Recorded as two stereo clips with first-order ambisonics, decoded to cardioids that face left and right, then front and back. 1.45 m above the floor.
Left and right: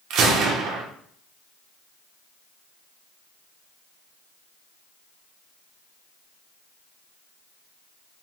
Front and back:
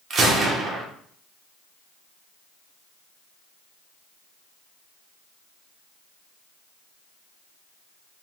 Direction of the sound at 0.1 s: 125° right.